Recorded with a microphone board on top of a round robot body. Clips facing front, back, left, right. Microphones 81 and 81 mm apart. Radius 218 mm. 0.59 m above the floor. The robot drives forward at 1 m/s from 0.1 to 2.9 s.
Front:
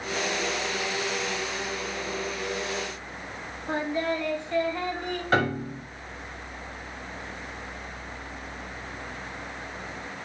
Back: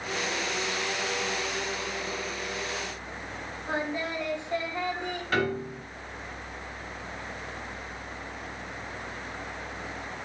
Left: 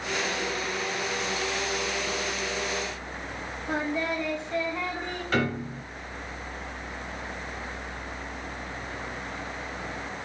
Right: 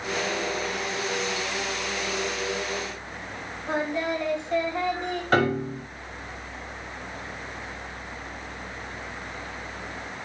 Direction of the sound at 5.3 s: 55° right.